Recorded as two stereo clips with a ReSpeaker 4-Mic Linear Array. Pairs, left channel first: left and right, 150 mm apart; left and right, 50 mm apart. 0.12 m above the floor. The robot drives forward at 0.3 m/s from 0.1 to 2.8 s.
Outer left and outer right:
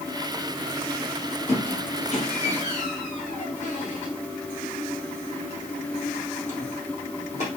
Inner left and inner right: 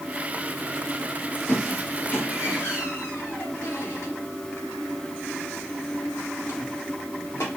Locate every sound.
1.5 s a squeak: 45° left (ahead or behind), 1.5 m; by 7.5 s 50° left (ahead or behind), 1.4 m